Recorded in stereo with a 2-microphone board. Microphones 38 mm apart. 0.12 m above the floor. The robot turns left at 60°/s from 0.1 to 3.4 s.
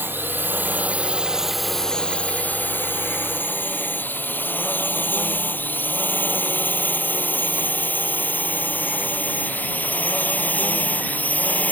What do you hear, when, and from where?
0.0 s a drone: 70° right (ahead or behind); by 11.7 s 45° left (ahead or behind)